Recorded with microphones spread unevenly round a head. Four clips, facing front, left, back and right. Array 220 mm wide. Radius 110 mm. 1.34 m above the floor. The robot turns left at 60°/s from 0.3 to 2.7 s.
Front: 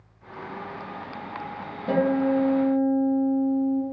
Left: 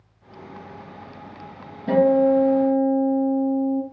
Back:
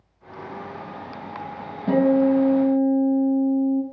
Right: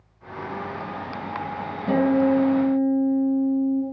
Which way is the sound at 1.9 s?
175° right.